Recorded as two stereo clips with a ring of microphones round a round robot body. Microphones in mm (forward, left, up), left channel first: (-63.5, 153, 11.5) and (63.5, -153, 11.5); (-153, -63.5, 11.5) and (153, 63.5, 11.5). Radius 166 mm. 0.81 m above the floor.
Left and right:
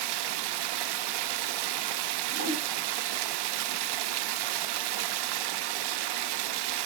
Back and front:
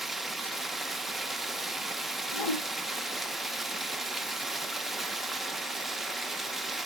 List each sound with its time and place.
0.0 s running water: 65° right, 0.8 m
2.3 s a whoosh: 135° right, 3.5 m